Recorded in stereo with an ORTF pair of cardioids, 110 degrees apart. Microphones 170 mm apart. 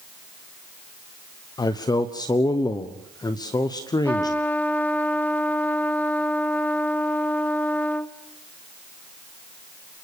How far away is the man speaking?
About 1.2 m.